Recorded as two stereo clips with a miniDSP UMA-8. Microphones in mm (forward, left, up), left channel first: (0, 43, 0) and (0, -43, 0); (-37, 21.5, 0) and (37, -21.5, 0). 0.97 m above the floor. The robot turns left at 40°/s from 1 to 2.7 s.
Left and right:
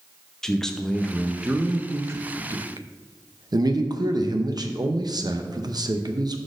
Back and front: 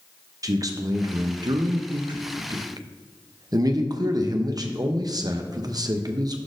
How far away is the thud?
No thud in this recording.